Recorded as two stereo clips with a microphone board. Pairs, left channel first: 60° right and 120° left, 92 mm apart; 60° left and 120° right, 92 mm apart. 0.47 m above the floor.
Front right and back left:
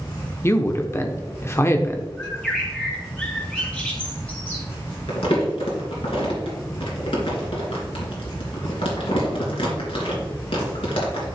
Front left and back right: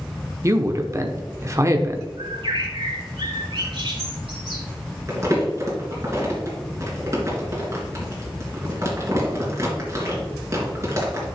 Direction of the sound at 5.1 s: 60° right.